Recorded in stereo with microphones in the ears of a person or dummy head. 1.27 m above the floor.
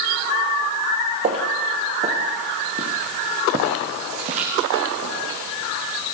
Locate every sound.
1.2 s footsteps: 35° right (ahead or behind), 1.7 m; by 5.4 s 30° right (ahead or behind), 6.5 m